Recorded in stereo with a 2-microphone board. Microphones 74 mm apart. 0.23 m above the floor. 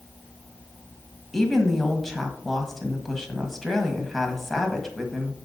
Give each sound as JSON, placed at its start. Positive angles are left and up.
{"t": 1.3, "sound": "a woman speaking", "side_deg": 5, "distance_m": 1.2}